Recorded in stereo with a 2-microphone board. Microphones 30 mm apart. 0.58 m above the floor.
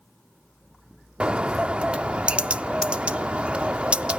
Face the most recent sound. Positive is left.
turn(degrees=-40)  # may be behind; listen again after turning